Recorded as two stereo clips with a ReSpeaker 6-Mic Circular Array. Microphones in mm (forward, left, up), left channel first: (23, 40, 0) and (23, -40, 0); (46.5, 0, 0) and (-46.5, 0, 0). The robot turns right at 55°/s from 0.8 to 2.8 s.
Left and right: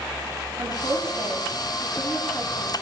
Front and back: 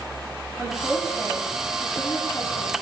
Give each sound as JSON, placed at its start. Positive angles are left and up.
{"t": 0.6, "sound": "a woman speaking", "azimuth_deg": -75, "distance_m": 4.5}